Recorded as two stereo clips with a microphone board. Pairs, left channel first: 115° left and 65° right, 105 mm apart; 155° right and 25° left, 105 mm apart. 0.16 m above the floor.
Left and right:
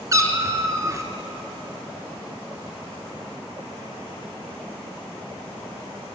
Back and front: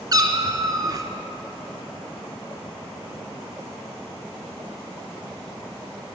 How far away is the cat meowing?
About 1.2 m.